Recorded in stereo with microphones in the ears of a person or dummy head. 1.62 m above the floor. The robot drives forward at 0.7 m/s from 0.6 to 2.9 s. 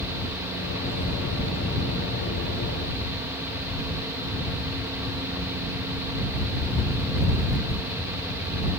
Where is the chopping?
No chopping in this recording.